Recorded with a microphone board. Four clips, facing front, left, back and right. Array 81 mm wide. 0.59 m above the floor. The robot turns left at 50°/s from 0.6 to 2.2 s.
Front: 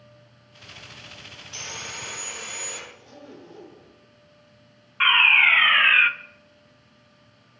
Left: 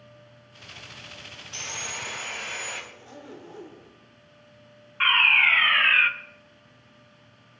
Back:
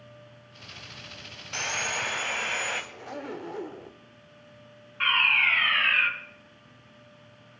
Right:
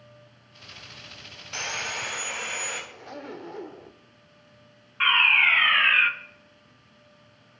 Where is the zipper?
150° right, 0.9 m.